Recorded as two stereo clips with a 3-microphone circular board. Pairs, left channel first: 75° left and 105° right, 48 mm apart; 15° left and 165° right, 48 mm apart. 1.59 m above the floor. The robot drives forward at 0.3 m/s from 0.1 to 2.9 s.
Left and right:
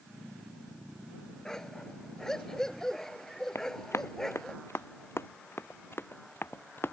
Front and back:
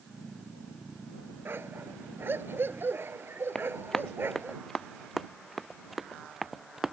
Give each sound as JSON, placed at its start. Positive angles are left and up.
{"t": 1.4, "sound": "a dog barking", "azimuth_deg": 155}
{"t": 3.5, "sound": "running footsteps", "azimuth_deg": 90}